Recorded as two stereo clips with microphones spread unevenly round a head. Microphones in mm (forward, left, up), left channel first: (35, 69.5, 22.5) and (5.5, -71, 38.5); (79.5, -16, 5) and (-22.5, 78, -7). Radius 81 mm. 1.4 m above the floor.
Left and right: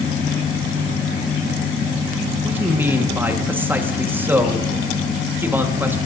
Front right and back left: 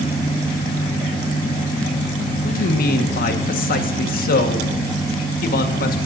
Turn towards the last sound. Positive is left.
turn(degrees=-25)